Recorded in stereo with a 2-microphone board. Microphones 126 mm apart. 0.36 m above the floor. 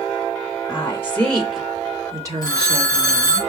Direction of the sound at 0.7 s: 25° left (ahead or behind).